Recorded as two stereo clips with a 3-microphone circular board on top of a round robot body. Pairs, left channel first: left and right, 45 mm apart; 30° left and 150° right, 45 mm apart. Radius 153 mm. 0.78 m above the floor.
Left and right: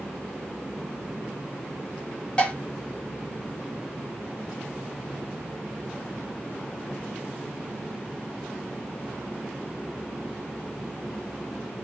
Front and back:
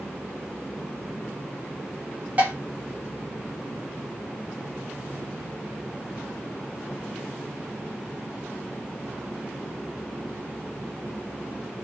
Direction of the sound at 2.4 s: 155° left.